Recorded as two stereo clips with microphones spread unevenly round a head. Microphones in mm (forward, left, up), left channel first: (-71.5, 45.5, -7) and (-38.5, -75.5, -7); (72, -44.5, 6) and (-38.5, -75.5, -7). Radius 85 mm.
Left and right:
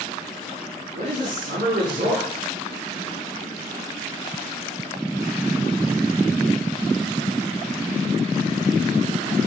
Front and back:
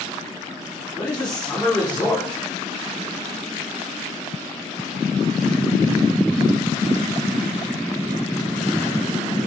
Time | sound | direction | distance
0.9 | a man speaking | 65° right | 3.5 m